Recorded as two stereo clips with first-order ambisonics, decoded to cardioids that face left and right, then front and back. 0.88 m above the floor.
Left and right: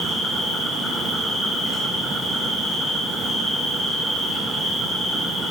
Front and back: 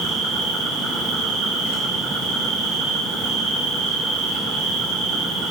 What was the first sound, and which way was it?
An insect, 170° right.